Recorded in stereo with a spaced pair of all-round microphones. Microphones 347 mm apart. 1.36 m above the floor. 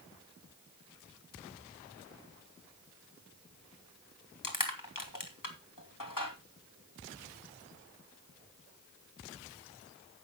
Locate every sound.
4.4 s crushing: 75° left (ahead or behind), 2 m